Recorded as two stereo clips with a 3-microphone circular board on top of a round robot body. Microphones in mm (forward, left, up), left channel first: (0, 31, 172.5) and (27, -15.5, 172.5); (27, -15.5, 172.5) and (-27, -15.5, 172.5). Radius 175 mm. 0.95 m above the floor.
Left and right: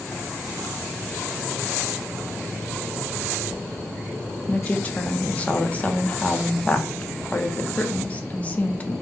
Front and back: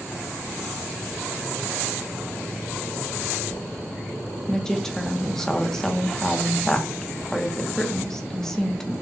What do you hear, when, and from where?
4.5 s a woman speaking: 75° left, 0.8 m